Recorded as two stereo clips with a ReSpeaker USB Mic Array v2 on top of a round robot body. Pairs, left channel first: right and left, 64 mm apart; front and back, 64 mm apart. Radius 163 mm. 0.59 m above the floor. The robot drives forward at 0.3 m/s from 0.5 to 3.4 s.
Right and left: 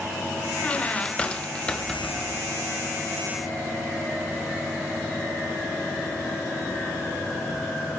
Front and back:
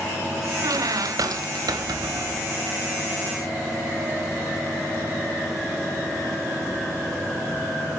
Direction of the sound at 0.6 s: 160° right.